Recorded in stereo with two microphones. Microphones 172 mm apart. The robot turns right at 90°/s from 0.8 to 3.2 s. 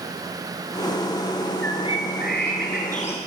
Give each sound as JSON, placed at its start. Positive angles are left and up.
{"t": 1.6, "sound": "a bird", "azimuth_deg": 10, "distance_m": 5.0}